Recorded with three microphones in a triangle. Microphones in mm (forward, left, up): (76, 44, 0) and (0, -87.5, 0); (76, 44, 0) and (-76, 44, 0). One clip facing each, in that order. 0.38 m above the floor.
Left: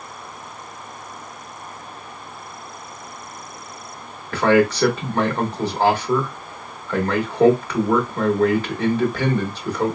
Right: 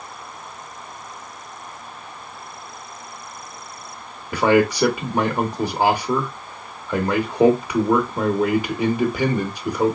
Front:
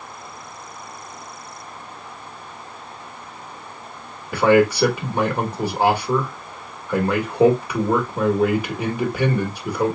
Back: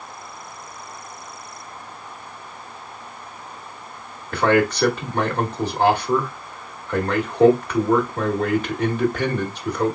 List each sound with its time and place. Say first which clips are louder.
4.3 s a man speaking: even, front 3 dB; 65° right, 1.1 m